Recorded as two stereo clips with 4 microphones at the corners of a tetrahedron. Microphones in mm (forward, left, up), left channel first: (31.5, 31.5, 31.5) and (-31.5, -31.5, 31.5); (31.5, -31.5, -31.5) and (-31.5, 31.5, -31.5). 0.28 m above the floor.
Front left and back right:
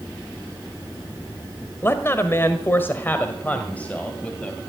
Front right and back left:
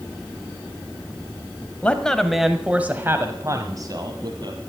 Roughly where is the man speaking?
Ahead.